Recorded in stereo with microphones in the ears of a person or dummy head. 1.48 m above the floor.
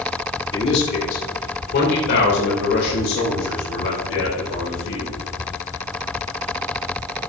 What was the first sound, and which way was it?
A man speaking, 25° left (ahead or behind).